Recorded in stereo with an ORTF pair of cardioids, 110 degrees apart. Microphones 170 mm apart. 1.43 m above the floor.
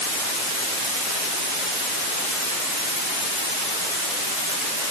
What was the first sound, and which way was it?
Only background noise.